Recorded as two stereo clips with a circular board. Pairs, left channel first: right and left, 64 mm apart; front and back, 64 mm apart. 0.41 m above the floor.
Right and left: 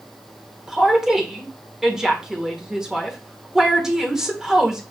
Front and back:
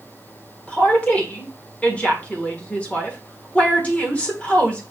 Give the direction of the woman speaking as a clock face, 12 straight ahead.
11 o'clock.